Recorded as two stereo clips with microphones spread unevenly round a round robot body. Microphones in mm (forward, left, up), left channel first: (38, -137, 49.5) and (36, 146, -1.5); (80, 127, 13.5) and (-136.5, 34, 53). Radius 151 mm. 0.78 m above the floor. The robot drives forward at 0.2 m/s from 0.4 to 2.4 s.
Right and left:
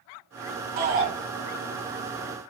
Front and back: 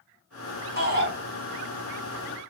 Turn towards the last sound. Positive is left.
turn(degrees=150)